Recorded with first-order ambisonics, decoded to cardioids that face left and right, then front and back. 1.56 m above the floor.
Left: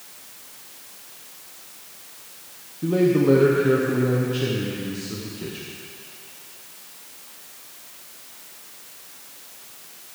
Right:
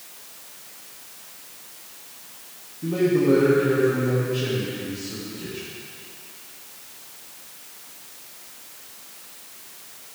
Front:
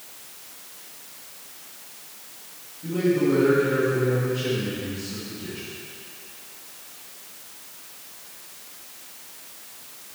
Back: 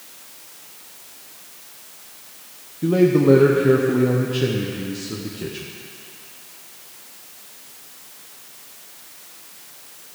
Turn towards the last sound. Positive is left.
turn(degrees=160)